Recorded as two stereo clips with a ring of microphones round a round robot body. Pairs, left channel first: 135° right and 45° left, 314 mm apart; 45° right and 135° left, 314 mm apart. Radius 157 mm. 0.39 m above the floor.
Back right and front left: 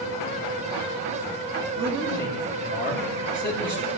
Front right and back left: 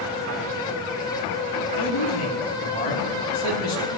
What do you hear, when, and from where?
1.8 s a man speaking: 30° right, 3.5 m